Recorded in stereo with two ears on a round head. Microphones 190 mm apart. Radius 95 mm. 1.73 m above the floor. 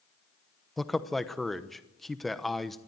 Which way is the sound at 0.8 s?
Centre (ahead or behind).